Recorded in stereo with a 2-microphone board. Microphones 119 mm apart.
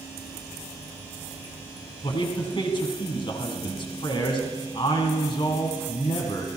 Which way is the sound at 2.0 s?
45° left (ahead or behind).